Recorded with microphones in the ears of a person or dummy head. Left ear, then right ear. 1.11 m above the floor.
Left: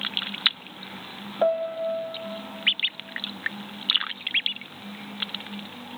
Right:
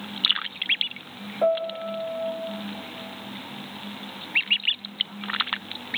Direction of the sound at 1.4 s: 65° left (ahead or behind).